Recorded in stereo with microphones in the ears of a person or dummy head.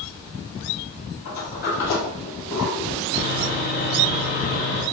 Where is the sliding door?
50° left (ahead or behind), 2.5 m.